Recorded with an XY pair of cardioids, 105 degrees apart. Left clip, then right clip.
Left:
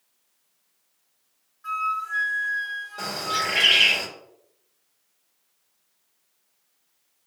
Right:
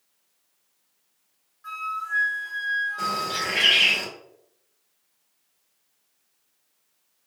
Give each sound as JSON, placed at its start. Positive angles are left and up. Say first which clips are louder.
{"t": 1.6, "sound": "a flute", "louder": "left 4 dB", "azimuth_deg": 10, "distance_m": 1.5}
{"t": 3.0, "sound": "a bird", "louder": "even", "azimuth_deg": 25, "distance_m": 1.8}